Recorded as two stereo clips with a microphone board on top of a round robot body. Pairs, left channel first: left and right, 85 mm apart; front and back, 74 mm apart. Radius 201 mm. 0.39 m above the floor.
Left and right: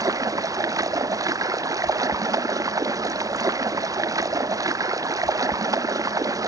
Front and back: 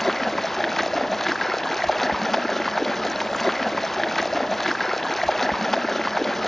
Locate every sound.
0.0 s running water: 85° right, 1.4 m